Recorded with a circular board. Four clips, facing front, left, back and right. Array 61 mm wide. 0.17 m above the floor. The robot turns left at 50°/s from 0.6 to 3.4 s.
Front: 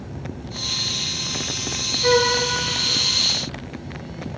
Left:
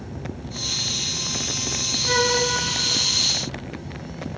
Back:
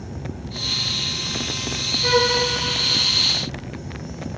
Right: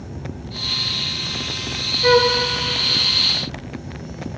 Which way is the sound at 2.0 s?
80° right.